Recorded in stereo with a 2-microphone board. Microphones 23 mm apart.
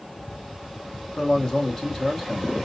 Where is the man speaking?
25° left (ahead or behind), 1.2 m.